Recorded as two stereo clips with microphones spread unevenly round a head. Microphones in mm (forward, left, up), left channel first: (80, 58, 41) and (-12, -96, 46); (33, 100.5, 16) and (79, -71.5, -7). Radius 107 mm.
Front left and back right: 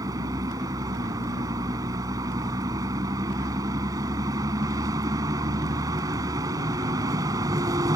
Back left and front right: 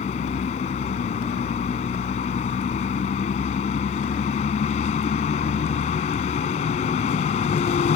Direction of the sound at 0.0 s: 165° left.